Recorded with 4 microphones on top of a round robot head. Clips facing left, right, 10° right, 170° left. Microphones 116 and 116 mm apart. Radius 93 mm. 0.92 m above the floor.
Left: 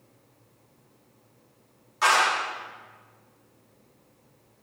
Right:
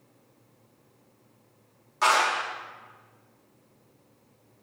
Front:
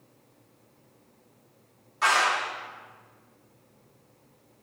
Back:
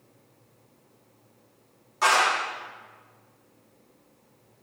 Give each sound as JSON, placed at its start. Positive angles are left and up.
{"t": 2.0, "sound": "a clap", "azimuth_deg": -135, "distance_m": 2.0}